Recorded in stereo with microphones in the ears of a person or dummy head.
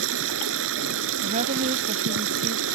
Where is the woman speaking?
35° right (ahead or behind).